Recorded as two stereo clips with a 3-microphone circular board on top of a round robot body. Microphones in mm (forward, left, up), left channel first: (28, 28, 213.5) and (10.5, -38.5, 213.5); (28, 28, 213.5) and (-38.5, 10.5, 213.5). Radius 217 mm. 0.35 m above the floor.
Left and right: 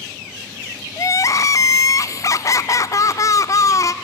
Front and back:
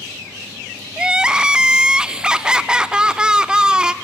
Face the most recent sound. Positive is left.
turn(degrees=115)